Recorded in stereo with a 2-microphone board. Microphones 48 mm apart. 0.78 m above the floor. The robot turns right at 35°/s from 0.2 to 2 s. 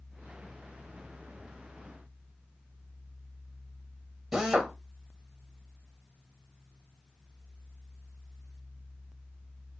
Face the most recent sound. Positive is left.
turn(degrees=-15)  # may be behind; listen again after turning